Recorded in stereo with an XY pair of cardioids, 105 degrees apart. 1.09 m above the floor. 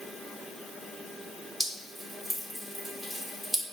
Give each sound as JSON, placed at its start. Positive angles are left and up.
{"t": 1.6, "sound": "dripping", "azimuth_deg": 0, "distance_m": 1.9}